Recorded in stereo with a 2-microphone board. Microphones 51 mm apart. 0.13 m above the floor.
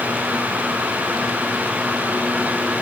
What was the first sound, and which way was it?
Only background noise.